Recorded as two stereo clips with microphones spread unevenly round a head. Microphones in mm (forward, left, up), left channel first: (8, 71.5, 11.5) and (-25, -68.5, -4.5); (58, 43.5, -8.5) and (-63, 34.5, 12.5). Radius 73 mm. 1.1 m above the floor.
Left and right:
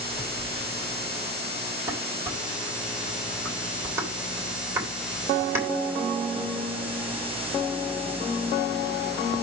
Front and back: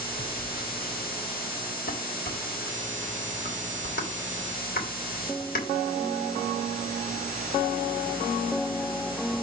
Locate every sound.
0.1 s a phone buzzing: 10° left, 5 m
1.9 s dishes clattering: 30° right, 3.5 m